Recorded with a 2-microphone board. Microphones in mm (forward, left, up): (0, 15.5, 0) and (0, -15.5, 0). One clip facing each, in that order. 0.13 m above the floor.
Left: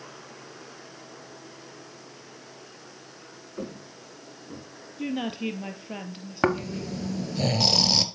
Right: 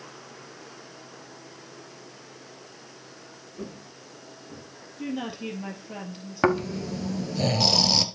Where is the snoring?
Centre (ahead or behind), 1.3 m.